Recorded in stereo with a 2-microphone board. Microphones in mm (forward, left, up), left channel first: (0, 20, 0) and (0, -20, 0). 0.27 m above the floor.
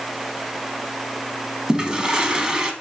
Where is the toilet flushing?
20° right (ahead or behind), 0.5 m.